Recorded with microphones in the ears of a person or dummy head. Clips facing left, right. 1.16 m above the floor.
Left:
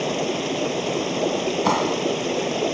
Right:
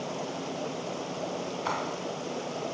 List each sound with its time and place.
0.0 s running water: 90° left
1.6 s a clap: 85° left